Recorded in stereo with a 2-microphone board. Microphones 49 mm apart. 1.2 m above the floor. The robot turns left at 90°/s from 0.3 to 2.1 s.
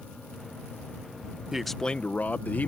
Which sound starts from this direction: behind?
A man speaking, at 1.5 s.